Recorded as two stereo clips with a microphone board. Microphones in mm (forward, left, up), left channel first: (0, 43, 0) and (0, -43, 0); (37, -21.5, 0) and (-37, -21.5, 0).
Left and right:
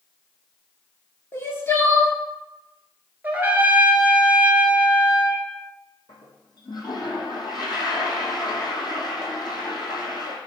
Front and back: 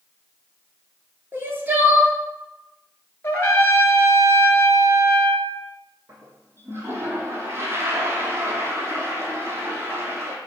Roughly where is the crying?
Behind left.